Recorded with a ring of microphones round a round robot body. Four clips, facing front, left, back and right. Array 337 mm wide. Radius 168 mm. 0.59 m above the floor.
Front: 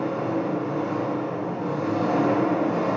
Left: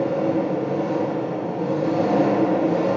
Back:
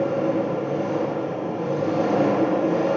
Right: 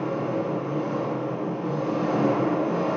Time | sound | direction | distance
0.0 | an engine running | 115° left | 6 m